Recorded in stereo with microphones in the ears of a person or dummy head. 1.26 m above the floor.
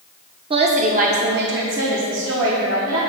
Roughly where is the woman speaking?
Right.